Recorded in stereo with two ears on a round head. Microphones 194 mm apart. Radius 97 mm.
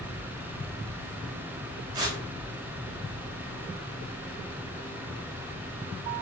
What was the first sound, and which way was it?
Tearing paper, 20° right (ahead or behind).